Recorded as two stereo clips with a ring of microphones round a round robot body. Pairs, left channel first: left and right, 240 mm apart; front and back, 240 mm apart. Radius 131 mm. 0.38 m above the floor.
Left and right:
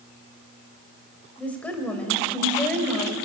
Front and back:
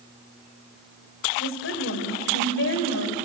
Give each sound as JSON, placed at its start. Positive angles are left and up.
{"t": 1.4, "sound": "a woman speaking", "azimuth_deg": 5, "distance_m": 2.0}